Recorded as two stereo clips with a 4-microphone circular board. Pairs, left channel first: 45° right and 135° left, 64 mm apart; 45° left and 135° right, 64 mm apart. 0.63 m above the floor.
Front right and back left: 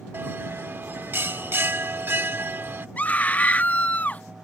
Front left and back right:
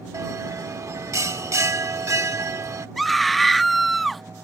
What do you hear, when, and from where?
0.1 s a bell: 175° right
3.0 s a scream: 40° right